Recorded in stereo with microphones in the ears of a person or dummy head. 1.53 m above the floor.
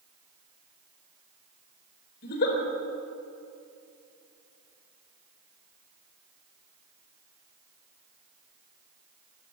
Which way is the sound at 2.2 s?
60° left (ahead or behind).